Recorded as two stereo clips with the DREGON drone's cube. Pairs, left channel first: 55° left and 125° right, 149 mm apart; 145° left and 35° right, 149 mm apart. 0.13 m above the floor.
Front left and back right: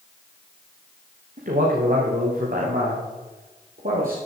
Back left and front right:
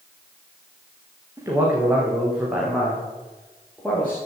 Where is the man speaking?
105° right, 6 m; by 4.2 s 130° right, 6 m.